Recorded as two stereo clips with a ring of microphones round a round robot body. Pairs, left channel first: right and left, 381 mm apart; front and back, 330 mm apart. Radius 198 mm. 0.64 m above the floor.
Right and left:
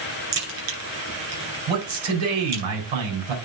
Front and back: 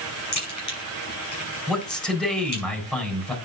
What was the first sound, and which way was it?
A crack, 40° left.